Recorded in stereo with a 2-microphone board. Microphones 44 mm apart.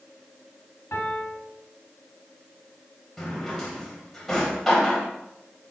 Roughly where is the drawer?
Centre.